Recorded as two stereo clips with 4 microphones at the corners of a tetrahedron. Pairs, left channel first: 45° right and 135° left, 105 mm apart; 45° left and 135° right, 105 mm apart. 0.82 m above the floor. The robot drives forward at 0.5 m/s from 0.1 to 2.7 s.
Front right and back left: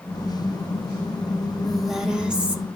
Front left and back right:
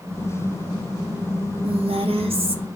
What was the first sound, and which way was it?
A woman speaking, 135° right.